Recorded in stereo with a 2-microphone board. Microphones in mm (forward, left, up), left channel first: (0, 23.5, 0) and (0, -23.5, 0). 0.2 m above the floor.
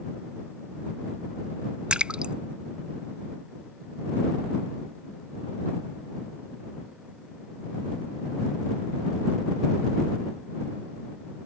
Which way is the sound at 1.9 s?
25° right (ahead or behind).